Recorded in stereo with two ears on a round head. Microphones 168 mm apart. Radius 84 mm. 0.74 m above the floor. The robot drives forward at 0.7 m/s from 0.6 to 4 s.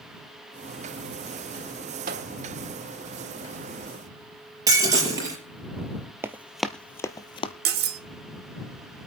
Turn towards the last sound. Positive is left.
turn(degrees=-60)  # may be behind; listen again after turning